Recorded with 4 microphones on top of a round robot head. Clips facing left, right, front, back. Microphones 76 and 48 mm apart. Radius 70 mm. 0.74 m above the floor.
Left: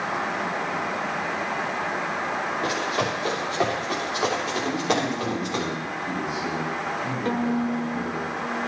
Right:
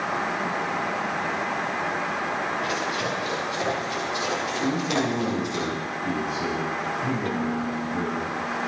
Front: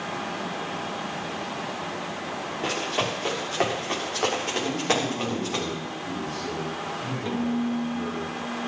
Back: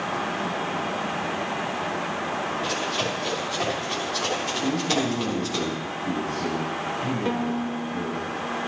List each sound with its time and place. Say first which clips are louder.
2.6 s running footsteps: left 2 dB, back 1 dB; 40° left, 6.5 m; by 5.6 s 50° left, 7.5 m
4.6 s a man speaking: right 1 dB, back 2 dB; 125° right, 7 m
7.2 s a violin: left 2 dB, even; 140° left, 0.9 m